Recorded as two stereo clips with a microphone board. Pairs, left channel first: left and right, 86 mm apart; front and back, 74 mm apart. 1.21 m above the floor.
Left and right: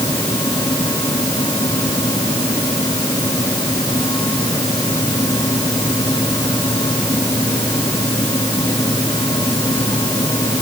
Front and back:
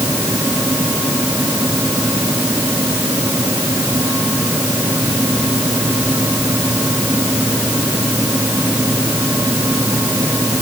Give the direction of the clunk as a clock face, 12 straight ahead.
I don't hear a clunk.